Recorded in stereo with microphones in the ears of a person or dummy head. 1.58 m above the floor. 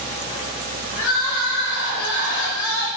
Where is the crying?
70° left (ahead or behind), 0.9 m.